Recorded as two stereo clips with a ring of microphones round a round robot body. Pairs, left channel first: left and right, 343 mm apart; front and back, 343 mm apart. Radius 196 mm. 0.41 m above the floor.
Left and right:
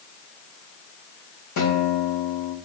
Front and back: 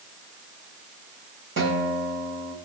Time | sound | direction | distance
1.6 | a guitar | 130° left | 1.9 m